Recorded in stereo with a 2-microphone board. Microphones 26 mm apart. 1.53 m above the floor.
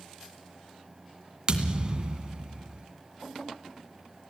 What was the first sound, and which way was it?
A thud, 35° right (ahead or behind).